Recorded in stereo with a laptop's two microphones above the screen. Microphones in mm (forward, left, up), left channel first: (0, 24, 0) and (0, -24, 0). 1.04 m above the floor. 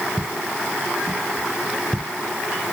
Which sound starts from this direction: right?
Footsteps, at 0.2 s.